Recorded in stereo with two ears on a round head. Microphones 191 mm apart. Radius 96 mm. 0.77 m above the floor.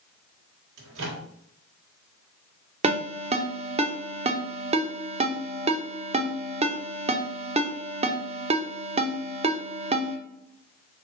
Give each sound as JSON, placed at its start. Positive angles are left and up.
{"t": 0.8, "sound": "a microwave", "side_deg": -65, "distance_m": 1.5}
{"t": 2.8, "sound": "a ringtone", "side_deg": -30, "distance_m": 0.6}